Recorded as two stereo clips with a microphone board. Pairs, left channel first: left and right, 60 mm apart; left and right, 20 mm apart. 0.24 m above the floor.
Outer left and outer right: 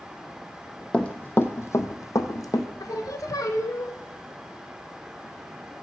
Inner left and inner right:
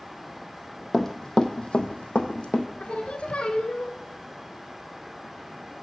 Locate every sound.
0.9 s running footsteps: 15° left (ahead or behind), 0.6 m; by 2.7 s 75° left (ahead or behind), 0.8 m
2.8 s singing: 80° left, 0.5 m